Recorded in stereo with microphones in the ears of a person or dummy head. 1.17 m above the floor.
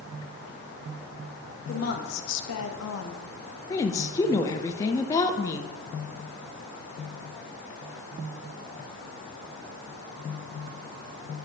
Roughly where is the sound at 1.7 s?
Left.